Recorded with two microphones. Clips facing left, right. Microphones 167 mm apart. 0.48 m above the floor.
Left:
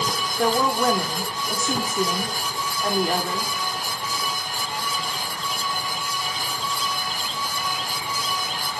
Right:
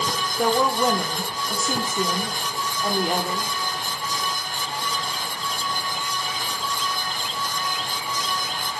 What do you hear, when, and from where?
0.4 s a woman speaking: 10° right (ahead or behind), 0.9 m